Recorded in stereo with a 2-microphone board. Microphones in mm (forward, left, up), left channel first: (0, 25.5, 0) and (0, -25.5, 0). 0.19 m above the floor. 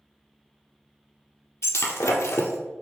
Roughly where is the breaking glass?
Left.